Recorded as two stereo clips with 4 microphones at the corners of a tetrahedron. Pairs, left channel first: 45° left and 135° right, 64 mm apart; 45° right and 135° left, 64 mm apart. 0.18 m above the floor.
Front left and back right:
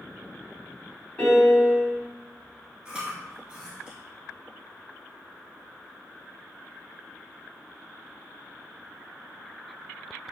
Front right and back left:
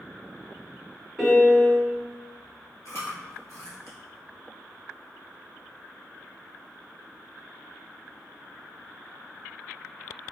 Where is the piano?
20° left, 1.1 m.